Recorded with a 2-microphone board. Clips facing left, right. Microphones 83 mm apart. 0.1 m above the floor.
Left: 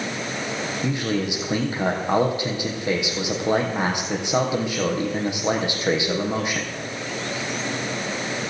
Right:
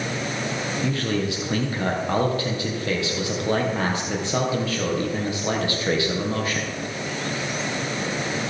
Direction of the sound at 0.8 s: 15° left (ahead or behind).